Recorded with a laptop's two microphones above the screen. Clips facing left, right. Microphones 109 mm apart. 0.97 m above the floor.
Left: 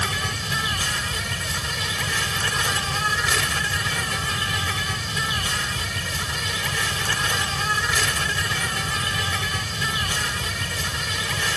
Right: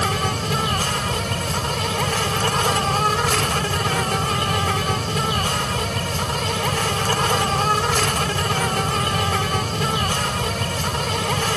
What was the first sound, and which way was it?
An insect, 50° right (ahead or behind).